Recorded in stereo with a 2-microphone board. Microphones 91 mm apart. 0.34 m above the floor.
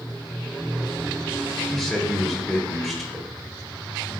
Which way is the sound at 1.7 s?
Centre (ahead or behind).